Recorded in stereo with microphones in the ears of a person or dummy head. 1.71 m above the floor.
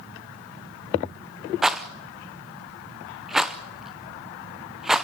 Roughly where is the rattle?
Centre.